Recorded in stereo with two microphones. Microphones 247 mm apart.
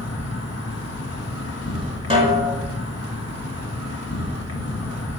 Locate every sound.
0.0 s an insect: 85° left, 1.2 m
2.1 s a snare drum: 25° right (ahead or behind), 1.7 m